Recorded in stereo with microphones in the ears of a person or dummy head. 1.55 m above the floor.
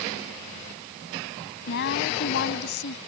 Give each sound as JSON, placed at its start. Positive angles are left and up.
{"t": 1.7, "sound": "a woman speaking", "side_deg": 60}